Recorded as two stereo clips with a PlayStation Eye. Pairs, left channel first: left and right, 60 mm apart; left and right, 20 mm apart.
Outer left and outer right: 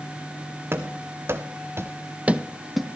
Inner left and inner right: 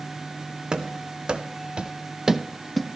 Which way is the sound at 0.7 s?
40° right (ahead or behind).